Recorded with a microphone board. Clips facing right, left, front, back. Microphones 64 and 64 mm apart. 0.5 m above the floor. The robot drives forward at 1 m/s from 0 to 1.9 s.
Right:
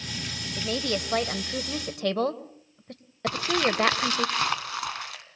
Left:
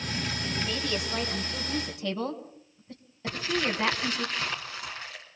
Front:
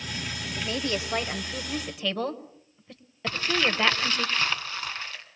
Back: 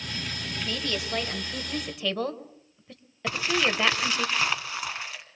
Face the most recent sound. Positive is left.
turn(degrees=-100)